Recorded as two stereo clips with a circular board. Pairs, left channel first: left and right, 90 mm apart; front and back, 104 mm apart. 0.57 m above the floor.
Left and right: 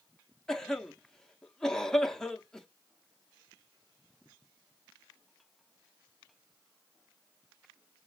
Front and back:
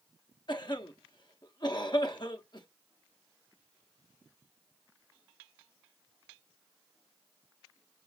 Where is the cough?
10° left, 0.8 m.